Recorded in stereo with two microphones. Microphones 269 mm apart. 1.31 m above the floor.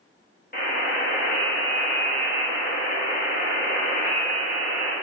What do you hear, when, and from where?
0.5 s a buzzer: 35° left (ahead or behind), 1.0 m